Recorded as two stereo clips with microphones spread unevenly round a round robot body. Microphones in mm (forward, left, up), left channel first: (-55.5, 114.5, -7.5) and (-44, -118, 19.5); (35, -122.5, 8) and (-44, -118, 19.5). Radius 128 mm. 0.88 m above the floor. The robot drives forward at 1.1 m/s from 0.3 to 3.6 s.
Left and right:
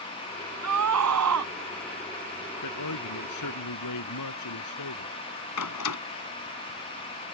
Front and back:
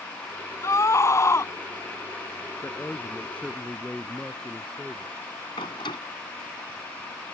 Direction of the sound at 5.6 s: 60° left.